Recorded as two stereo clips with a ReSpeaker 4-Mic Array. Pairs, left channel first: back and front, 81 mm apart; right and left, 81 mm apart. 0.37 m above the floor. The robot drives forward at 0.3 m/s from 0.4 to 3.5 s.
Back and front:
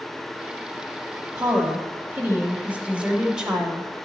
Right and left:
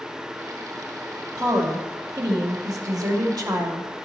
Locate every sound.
1.4 s a woman speaking: 50° left, 1.5 m; by 3.9 s 80° left, 1.3 m